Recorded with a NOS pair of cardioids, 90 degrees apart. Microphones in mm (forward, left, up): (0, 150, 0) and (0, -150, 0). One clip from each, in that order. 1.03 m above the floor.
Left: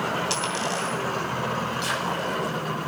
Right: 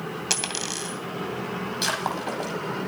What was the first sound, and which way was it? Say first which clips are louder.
A dropped coin: left 2 dB; 35° right.